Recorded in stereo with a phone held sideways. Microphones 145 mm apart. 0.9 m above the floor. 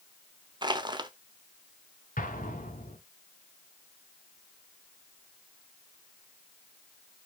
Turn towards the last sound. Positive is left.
turn(degrees=75)  # may be behind; listen again after turning